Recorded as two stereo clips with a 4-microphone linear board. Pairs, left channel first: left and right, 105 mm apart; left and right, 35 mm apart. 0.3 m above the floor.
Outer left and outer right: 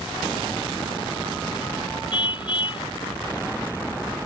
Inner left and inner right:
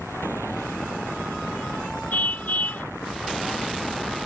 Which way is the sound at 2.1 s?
55° left (ahead or behind).